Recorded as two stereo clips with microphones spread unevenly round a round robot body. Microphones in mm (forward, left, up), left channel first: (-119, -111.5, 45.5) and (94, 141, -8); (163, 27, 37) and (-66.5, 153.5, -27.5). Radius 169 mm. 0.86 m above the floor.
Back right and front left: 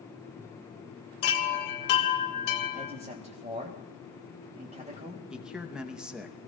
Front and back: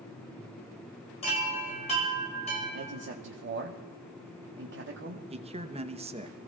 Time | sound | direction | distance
1.2 | a chime | 100° right | 1.8 m
2.7 | a man speaking | 115° left | 1.3 m
5.3 | a man speaking | 125° left | 0.9 m